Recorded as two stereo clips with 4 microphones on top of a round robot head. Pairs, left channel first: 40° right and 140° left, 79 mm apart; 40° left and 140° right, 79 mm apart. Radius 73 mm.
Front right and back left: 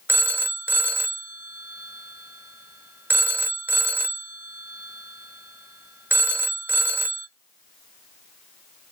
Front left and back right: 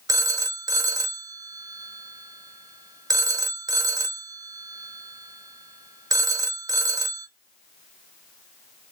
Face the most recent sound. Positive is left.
turn(degrees=-160)